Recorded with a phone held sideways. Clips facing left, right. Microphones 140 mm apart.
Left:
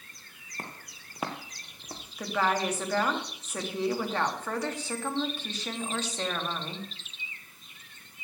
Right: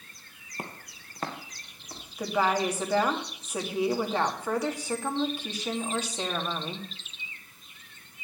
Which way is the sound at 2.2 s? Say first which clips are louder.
Right 2 dB; 10° right (ahead or behind).